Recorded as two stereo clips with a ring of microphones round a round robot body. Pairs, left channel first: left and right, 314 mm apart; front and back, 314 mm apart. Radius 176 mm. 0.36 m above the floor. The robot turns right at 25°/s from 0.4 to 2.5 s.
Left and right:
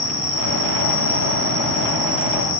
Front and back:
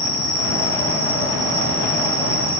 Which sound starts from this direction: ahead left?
An insect, at 0.0 s.